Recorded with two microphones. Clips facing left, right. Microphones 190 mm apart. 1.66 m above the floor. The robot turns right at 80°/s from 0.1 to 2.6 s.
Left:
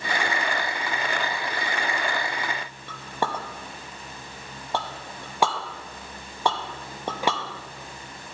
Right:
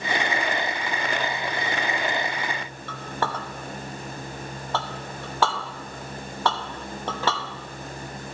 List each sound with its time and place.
2.9 s a clink: 15° left (ahead or behind), 1.0 m